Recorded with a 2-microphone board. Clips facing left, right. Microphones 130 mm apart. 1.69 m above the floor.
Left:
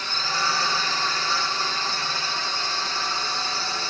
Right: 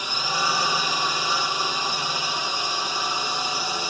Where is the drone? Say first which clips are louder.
Right 1 dB; 15° right (ahead or behind).